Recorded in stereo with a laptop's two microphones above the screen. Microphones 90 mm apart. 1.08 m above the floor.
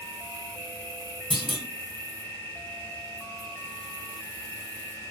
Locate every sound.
0.0 s an insect: 15° left (ahead or behind), 1.4 m
1.3 s a clunk: 60° right (ahead or behind), 1.4 m